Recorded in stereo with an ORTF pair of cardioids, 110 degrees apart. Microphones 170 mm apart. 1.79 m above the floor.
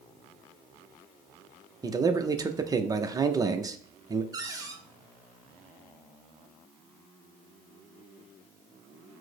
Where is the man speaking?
20° right, 0.6 m.